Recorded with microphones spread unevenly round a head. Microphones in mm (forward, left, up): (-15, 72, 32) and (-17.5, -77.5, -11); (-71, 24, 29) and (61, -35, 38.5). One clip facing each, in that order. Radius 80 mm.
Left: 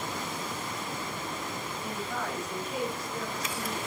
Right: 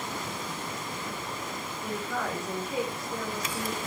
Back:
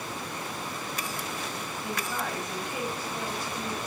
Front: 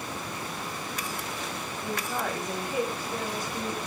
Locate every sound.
1.8 s a woman speaking: 95° right, 3.5 m